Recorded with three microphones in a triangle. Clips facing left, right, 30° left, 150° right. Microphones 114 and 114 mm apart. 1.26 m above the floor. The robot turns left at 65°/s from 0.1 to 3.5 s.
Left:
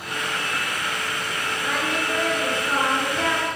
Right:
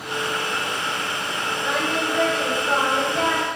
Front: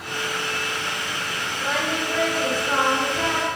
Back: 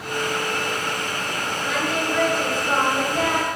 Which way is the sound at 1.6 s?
10° right.